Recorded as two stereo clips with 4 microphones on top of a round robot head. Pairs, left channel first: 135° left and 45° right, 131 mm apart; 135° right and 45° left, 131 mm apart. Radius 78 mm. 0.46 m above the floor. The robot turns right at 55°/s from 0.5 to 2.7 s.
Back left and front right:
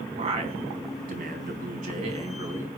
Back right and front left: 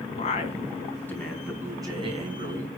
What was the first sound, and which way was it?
A man speaking, 90° right.